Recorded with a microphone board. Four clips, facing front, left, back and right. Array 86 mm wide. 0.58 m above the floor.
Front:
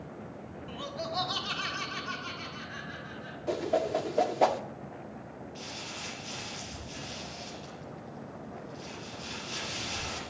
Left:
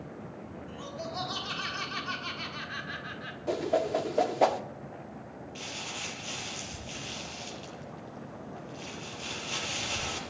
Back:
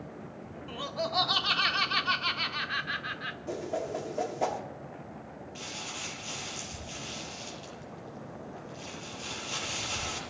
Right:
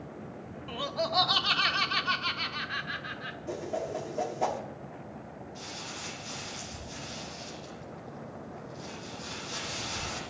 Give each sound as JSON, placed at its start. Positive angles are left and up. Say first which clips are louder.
{"t": 0.7, "sound": "laughter", "louder": "right 9 dB, back 4 dB", "azimuth_deg": -105, "distance_m": 1.4}
{"t": 3.5, "sound": "a whoosh", "louder": "left 6 dB, front 6 dB", "azimuth_deg": 55, "distance_m": 0.9}
{"t": 5.5, "sound": "crumpling", "louder": "left 3 dB, back 1 dB", "azimuth_deg": 110, "distance_m": 5.5}